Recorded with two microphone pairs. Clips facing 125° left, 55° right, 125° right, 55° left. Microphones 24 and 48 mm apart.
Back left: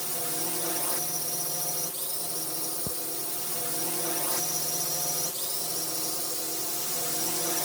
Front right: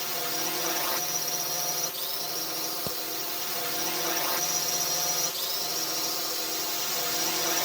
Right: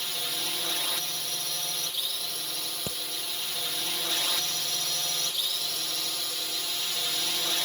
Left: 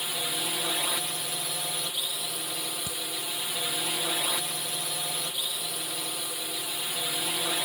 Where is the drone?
10° right.